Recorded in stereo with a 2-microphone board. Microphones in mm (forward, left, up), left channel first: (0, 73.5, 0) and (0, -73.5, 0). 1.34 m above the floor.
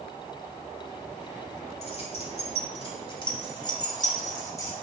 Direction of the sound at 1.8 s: 50° left (ahead or behind).